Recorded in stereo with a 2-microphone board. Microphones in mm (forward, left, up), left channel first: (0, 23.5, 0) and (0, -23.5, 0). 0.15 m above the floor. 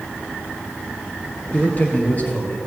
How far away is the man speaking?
About 2 m.